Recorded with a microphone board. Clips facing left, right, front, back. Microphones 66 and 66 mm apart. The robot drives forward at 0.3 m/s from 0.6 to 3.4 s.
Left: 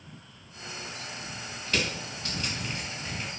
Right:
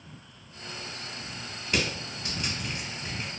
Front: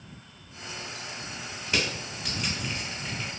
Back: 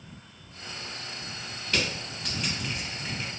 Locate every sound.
1.7 s crushing: 40° right, 0.8 m; by 3.3 s 140° right, 0.8 m